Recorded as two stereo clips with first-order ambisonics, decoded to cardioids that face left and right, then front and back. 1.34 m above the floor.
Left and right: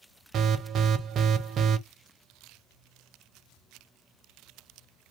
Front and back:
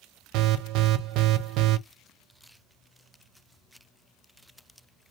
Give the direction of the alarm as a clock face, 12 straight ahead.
5 o'clock.